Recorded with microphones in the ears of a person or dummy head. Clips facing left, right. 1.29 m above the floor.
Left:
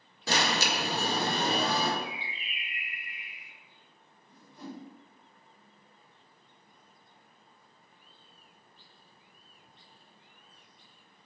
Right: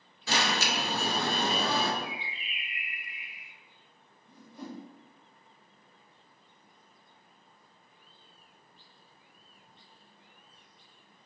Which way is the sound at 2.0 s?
60° left (ahead or behind).